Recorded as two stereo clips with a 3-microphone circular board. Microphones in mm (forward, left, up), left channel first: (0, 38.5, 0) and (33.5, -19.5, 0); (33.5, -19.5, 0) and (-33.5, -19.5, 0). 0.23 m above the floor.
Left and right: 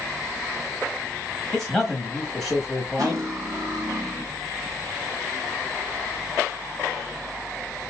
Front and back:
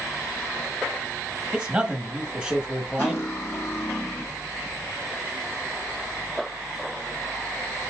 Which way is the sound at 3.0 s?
45° right.